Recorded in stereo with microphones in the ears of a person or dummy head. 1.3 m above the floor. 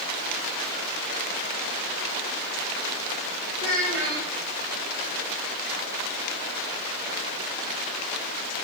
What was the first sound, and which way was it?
A child speaking, 60° right (ahead or behind).